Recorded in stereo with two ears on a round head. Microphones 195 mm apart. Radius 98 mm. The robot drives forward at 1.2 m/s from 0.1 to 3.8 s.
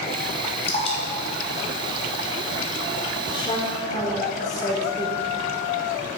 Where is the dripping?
30° left (ahead or behind), 2.5 m; by 2.8 s 15° left (ahead or behind), 4.5 m.